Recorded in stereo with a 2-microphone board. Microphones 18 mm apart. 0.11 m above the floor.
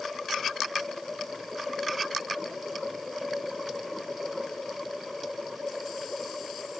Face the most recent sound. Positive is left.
No sound to turn to.